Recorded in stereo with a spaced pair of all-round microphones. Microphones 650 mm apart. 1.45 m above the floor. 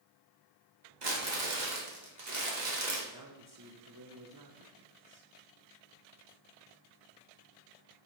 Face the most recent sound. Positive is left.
turn(degrees=-30)  # may be behind; listen again after turning